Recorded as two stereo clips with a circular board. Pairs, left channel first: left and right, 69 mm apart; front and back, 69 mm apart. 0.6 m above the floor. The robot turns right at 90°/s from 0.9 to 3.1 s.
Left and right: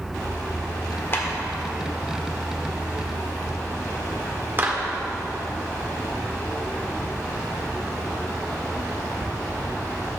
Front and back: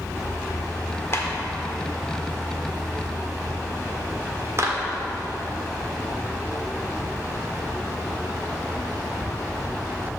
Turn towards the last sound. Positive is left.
turn(degrees=-140)